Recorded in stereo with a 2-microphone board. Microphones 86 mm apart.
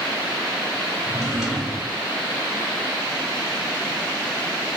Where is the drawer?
5° right (ahead or behind), 1.8 m.